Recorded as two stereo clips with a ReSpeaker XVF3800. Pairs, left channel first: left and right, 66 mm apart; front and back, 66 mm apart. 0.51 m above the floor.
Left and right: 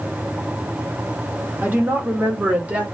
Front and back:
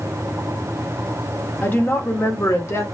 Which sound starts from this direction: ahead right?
A woman speaking, at 1.6 s.